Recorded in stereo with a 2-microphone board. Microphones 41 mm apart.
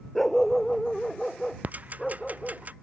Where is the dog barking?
5° left (ahead or behind).